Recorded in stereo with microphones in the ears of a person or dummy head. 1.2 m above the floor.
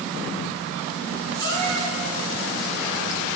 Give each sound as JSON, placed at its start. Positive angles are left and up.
{"t": 1.4, "sound": "a cat meowing", "side_deg": 20, "distance_m": 5.0}